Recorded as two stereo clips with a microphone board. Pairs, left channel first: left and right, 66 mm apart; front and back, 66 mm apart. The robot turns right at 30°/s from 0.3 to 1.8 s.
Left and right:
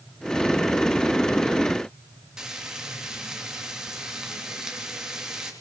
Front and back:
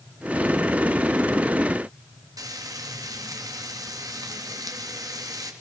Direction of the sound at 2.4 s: 170° right.